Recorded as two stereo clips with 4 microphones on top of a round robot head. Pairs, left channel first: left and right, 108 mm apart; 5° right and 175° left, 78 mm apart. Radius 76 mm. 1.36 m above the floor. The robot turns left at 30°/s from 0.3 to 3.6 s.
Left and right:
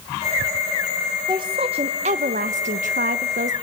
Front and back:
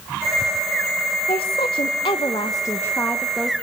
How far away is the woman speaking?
About 0.9 m.